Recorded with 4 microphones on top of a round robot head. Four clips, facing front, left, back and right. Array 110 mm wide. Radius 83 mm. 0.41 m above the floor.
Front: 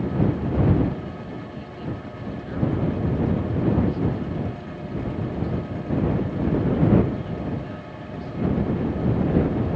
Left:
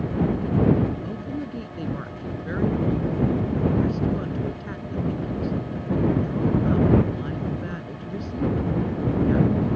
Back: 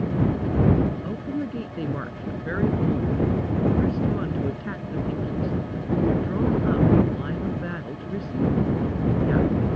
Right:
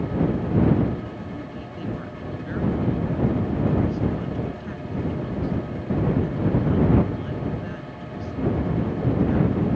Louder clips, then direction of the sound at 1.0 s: Left 3 dB, back 6 dB; 165° left.